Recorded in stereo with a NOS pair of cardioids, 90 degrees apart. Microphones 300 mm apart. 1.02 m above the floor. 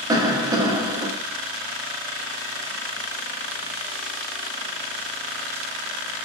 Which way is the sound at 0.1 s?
10° right.